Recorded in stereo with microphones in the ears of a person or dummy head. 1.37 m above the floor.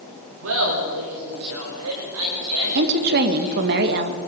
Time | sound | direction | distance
0.4 | laughter | 70° right (ahead or behind) | 6.5 m
2.8 | a woman speaking | 55° right (ahead or behind) | 1.7 m